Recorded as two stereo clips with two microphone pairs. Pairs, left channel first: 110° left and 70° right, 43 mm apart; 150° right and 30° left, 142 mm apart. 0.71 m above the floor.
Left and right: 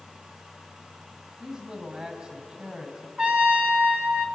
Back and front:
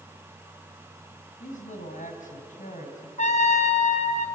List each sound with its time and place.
1.4 s a man speaking: 140° right, 4 m
3.2 s a trumpet: 130° right, 2.5 m